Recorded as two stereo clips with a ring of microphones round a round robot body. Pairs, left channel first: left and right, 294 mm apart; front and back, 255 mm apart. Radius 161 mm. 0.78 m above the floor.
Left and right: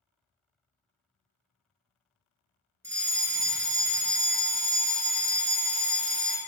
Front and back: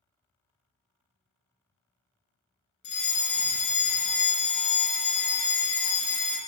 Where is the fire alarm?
15° right, 1.9 m.